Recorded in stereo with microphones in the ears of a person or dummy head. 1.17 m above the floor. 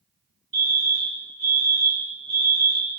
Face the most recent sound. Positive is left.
turn(degrees=-50)  # may be behind; listen again after turning